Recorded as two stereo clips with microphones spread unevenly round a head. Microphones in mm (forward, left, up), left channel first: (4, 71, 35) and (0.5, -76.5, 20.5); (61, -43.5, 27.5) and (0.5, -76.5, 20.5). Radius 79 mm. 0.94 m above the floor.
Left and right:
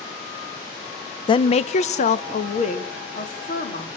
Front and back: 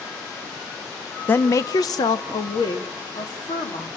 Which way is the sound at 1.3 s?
70° left.